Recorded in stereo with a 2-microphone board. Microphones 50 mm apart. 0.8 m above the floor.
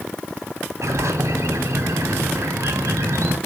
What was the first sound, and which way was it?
A bird, 80° right.